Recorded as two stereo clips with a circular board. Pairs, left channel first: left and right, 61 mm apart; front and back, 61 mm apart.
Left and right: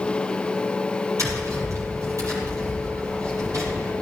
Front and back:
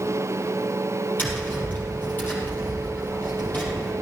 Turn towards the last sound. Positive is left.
turn(degrees=-60)